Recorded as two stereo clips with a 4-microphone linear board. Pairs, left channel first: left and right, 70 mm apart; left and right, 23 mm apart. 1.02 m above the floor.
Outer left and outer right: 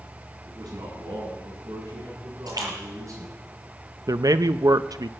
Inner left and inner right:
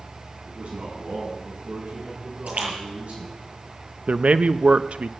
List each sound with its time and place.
0.5 s a man speaking: 70° right (ahead or behind), 8.5 m; by 3.5 s 50° right (ahead or behind), 6.5 m
2.5 s a splash: 70° right (ahead or behind), 7 m
4.1 s a man speaking: 60° right (ahead or behind), 0.6 m